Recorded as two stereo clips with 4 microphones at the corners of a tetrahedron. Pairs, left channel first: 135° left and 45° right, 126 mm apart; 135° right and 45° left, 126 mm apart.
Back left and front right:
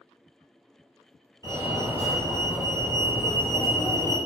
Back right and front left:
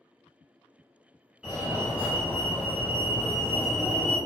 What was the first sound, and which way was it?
A fire alarm, 120° left.